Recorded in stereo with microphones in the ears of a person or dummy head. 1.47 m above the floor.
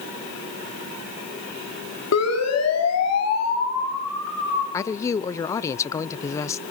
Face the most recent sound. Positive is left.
turn(degrees=15)  # may be behind; listen again after turning